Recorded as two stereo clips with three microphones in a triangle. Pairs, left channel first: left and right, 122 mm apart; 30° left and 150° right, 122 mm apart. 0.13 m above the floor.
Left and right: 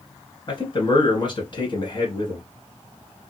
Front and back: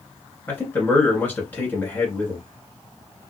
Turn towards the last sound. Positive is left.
turn(degrees=95)